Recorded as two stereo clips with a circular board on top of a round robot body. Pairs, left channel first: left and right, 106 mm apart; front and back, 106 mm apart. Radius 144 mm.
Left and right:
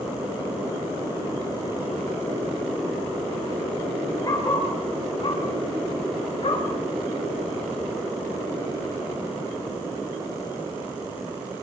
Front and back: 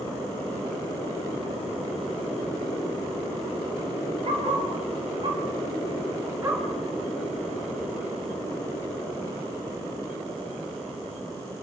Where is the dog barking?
150° left, 4 m; by 6.7 s 115° left, 4 m.